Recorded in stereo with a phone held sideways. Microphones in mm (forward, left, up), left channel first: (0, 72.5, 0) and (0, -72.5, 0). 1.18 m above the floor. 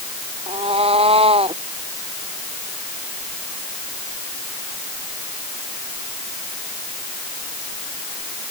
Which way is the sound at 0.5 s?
40° right (ahead or behind).